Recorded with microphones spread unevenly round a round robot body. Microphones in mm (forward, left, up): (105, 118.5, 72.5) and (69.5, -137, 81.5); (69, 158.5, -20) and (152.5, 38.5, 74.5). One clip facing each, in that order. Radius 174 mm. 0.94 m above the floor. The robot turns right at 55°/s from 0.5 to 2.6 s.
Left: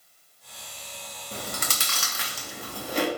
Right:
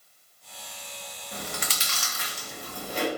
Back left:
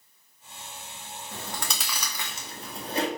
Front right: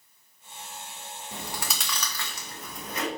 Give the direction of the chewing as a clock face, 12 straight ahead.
11 o'clock.